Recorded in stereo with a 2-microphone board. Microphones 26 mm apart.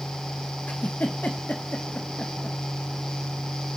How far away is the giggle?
About 1.3 m.